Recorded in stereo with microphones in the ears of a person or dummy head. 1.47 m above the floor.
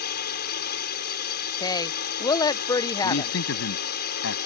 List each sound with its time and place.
0.0 s a drone: 55° left (ahead or behind)
1.6 s a woman speaking: 25° left (ahead or behind)
3.0 s a man speaking: 80° left